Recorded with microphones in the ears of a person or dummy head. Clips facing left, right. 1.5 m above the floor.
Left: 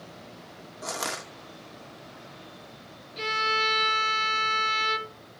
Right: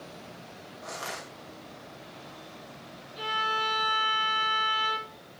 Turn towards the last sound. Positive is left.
turn(degrees=30)  # may be behind; listen again after turning